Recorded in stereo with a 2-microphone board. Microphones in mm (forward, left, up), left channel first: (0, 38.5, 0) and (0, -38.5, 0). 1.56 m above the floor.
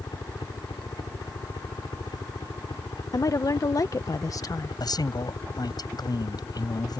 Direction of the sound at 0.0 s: 75° left (ahead or behind).